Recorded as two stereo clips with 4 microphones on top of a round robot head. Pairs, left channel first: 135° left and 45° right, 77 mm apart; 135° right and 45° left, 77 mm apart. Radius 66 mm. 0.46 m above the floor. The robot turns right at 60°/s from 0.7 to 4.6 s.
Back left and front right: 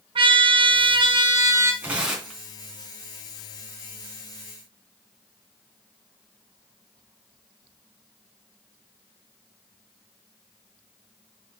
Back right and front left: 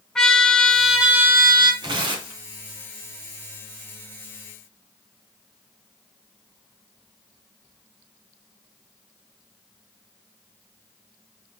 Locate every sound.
0.1 s a trumpet: 50° right, 1.9 m; by 1.7 s 10° left, 1.9 m
1.8 s tearing paper: 20° left, 3 m; by 2.4 s 55° left, 3 m